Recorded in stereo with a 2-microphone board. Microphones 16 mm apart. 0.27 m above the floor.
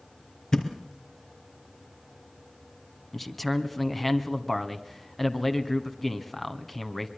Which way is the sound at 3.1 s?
15° left (ahead or behind).